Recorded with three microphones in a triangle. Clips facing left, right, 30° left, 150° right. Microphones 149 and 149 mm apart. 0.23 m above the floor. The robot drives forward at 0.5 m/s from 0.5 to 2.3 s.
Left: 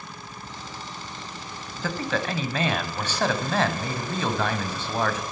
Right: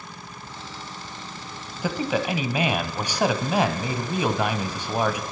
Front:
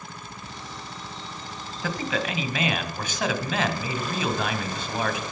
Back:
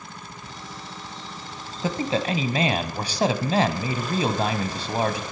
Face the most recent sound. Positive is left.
turn(degrees=-160)